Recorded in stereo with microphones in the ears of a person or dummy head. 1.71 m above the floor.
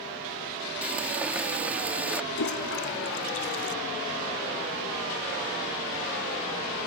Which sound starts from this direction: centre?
Frying, at 0.8 s.